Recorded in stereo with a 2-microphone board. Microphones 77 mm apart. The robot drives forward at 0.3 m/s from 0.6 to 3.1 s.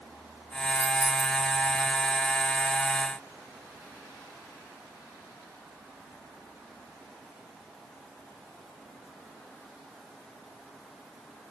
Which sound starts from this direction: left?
Keys jangling, at 0.8 s.